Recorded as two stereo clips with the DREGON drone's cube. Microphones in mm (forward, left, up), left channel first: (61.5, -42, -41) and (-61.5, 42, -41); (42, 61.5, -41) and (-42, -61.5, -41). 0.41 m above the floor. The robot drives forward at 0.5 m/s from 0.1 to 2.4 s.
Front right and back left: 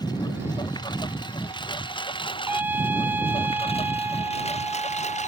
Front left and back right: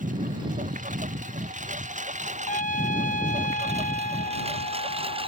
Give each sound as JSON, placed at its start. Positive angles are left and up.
{"t": 0.0, "sound": "a lawn mower", "azimuth_deg": -95}
{"t": 2.5, "sound": "a trumpet", "azimuth_deg": 70}